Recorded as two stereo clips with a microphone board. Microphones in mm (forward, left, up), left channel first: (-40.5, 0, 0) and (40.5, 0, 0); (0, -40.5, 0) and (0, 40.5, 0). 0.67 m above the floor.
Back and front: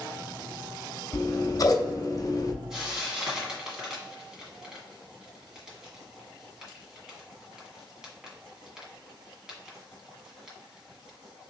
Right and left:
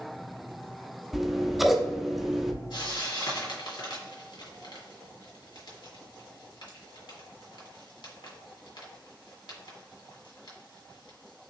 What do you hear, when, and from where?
1.1 s scissors: 175° left, 0.7 m
2.7 s frying: 80° right, 2.0 m